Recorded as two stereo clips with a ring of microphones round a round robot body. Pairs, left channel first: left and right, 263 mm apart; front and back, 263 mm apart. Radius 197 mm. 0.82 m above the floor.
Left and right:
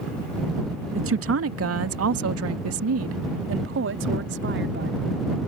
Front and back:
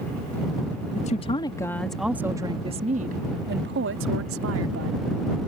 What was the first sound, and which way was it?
A woman speaking, 60° right.